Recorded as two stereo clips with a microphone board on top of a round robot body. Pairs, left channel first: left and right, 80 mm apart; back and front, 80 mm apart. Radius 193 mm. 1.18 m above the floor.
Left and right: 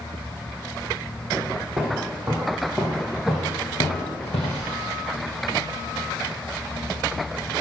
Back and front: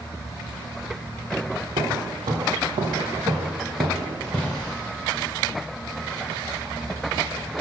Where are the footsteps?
10° right, 3 m; by 4.7 s 100° left, 1.9 m.